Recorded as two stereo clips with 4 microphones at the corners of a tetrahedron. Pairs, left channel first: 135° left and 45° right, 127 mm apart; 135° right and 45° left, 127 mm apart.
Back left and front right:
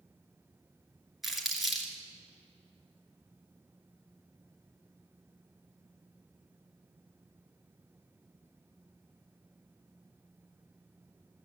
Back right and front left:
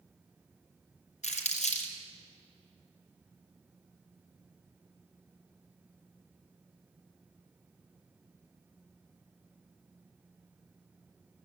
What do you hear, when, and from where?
1.2 s crumpling: 135° right, 2.5 m